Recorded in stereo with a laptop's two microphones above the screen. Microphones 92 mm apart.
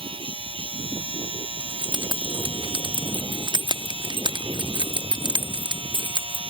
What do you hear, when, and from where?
0.0 s a machine running: 80° right
1.6 s keys jangling: 60° right (ahead or behind)